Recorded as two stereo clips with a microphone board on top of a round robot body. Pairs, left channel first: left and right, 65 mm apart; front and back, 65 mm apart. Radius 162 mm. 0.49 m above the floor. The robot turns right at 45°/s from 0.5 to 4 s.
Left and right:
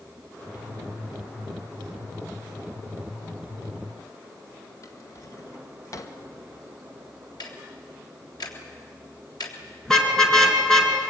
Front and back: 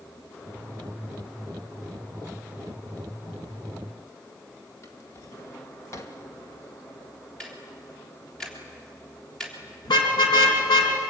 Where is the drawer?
45° left, 1.9 m.